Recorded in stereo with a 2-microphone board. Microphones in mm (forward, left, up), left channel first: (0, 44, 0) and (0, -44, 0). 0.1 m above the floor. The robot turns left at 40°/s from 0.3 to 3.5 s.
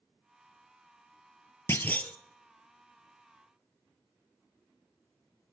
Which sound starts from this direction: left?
A clunk, at 1.7 s.